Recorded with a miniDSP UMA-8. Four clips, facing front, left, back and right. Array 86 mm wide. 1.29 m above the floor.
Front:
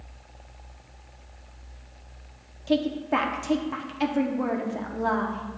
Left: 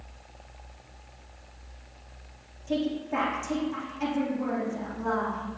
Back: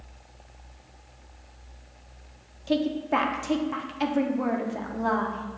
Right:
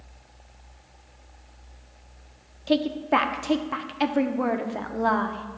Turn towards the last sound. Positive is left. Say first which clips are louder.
# right 6 dB, front 1 dB
turn(degrees=-90)